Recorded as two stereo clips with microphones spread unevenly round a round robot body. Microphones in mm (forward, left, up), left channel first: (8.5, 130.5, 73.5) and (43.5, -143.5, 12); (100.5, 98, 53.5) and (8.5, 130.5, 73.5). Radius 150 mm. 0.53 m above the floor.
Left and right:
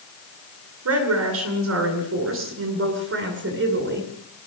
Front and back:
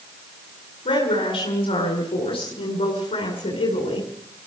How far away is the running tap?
I don't hear a running tap.